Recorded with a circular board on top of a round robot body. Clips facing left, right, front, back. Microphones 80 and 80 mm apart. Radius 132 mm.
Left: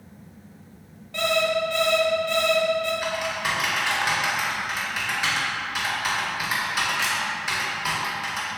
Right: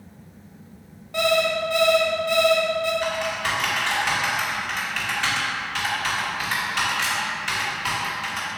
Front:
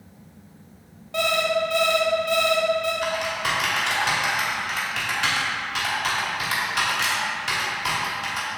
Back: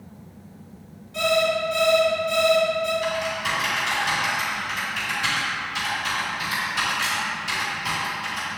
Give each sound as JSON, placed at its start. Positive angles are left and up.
{"t": 1.1, "sound": "an alarm clock", "azimuth_deg": -10, "distance_m": 1.7}
{"t": 3.0, "sound": "typing on a keyboard", "azimuth_deg": 10, "distance_m": 2.0}